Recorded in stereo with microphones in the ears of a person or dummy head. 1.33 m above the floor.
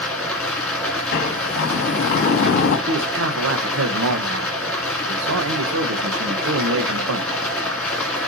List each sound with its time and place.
0.0 s running water: 5° left (ahead or behind), 3 m
1.1 s a sliding door: 55° left (ahead or behind), 1.5 m
2.9 s a man speaking: 70° right (ahead or behind), 1.2 m